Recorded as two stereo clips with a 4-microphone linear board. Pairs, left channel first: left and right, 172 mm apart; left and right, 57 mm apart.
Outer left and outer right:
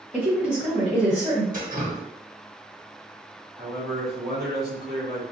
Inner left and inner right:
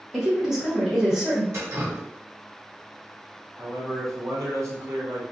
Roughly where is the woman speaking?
Centre.